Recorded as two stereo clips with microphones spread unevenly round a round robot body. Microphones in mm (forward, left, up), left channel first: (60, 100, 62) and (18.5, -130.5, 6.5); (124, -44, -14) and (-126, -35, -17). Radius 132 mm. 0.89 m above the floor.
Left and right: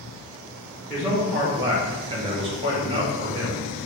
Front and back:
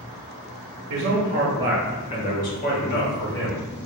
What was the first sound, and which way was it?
A man speaking, 175° left.